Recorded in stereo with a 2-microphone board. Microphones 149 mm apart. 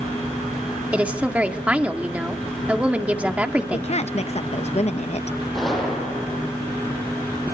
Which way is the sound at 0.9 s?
10° right (ahead or behind).